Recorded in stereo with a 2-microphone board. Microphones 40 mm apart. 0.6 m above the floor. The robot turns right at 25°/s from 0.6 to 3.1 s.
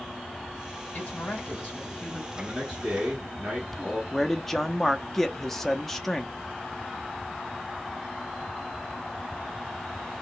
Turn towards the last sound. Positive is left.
turn(degrees=5)  # may be behind; listen again after turning